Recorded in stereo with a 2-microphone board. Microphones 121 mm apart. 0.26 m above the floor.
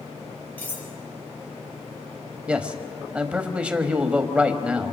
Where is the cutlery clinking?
15° left (ahead or behind), 4 m.